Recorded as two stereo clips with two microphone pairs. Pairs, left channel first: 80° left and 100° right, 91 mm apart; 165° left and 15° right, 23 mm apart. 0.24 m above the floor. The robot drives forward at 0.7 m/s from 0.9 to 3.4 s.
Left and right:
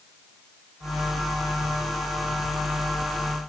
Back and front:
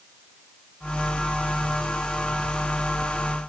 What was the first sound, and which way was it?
Only background noise.